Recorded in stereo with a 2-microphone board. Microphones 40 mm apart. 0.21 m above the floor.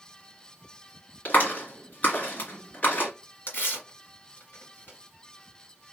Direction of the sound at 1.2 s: 45° left (ahead or behind).